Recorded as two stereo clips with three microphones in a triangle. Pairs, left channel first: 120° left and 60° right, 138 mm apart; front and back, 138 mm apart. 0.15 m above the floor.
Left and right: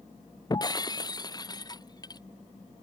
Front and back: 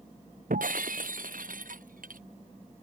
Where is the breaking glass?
Straight behind.